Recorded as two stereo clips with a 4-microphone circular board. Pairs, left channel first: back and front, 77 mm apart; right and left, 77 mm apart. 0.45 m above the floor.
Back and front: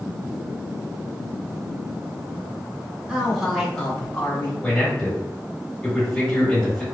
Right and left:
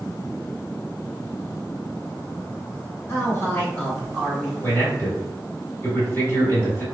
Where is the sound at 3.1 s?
75° right, 1.0 m; by 4.5 s straight behind, 0.9 m.